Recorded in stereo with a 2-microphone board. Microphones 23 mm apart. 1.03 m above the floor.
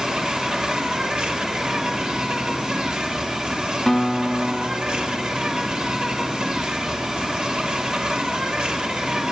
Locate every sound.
0.0 s an insect: 45° right (ahead or behind), 3 m
3.9 s a guitar: 20° left (ahead or behind), 1.5 m